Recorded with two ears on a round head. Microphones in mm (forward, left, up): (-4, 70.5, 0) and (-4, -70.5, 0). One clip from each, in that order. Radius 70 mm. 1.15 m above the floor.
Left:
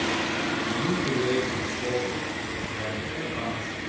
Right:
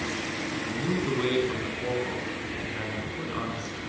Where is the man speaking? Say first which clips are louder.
Left 3 dB; 30° right (ahead or behind), 9 m; by 3.8 s 25° right (ahead or behind), 12.5 m.